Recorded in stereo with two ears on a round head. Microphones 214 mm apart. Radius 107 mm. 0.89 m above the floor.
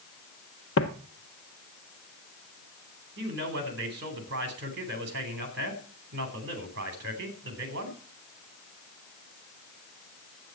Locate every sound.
0.8 s footsteps: 55° left (ahead or behind), 1.4 m
3.2 s a man speaking: 45° right (ahead or behind), 3.5 m